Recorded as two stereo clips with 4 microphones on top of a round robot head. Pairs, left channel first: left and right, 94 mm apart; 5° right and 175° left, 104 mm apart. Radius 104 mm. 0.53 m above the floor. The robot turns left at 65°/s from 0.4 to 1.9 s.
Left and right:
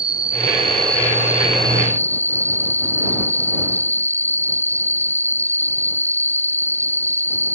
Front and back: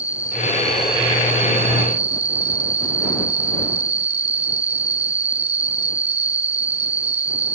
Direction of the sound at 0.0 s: 105° right.